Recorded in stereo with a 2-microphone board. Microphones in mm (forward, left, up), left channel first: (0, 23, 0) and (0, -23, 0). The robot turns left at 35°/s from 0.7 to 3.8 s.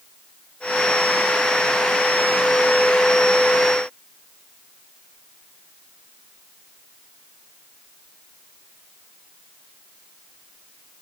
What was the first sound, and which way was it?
Only background noise.